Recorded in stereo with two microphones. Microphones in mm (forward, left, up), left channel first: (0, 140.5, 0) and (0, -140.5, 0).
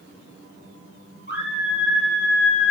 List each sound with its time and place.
1.3 s a scream: 35° left (ahead or behind), 6.5 m; by 2.7 s 45° left (ahead or behind), 4.5 m